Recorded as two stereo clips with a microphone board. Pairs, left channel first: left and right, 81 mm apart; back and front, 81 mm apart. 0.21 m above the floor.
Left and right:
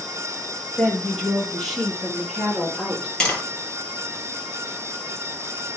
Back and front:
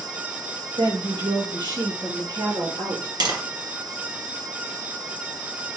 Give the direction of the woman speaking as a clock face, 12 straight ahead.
12 o'clock.